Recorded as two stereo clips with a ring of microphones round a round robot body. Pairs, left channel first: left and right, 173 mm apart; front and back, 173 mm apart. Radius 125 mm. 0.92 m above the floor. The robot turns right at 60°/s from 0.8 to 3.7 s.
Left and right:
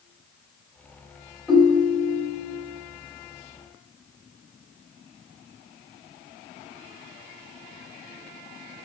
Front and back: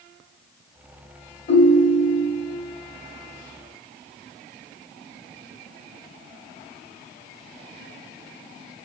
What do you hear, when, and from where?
1.5 s a ringtone: straight ahead, 1.1 m; by 2.5 s 60° left, 1.1 m